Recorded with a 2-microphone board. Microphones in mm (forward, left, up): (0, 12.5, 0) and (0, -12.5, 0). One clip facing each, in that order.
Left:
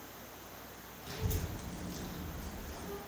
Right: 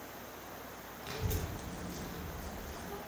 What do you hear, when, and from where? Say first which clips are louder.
1.0 s a child speaking: right 1 dB; 40° right (ahead or behind), 0.8 m; by 3.0 s 70° left (ahead or behind), 1.1 m